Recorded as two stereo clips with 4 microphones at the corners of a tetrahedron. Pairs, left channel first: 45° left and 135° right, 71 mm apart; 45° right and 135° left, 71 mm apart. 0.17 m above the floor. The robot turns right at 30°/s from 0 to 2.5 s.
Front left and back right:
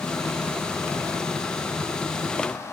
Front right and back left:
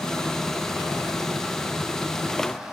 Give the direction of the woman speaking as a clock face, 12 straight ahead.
No woman speaking in this recording.